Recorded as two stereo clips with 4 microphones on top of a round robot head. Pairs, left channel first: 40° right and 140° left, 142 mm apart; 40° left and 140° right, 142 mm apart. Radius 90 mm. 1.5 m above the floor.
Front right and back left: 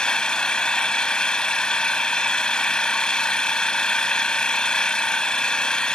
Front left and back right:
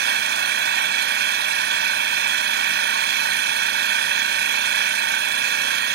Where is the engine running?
125° right.